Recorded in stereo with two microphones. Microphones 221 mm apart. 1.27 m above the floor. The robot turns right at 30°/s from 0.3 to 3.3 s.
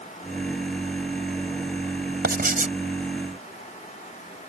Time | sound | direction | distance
2.2 | writing | 50° right (ahead or behind) | ?